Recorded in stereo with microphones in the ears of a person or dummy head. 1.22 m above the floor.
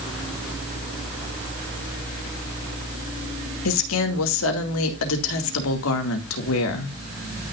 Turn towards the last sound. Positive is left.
turn(degrees=75)  # may be behind; listen again after turning